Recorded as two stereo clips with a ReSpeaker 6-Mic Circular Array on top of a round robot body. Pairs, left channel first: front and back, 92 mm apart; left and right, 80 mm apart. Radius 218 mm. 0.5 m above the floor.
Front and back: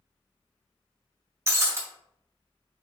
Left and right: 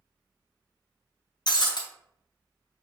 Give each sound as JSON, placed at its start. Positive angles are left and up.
{"t": 1.5, "sound": "breaking glass", "azimuth_deg": 120, "distance_m": 1.2}